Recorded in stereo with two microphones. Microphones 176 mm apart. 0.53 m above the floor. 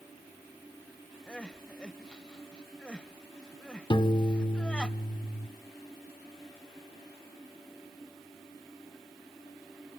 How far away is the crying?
About 0.6 m.